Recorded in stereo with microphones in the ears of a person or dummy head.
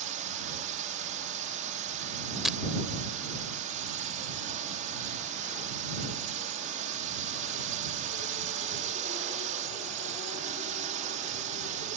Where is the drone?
40° right (ahead or behind).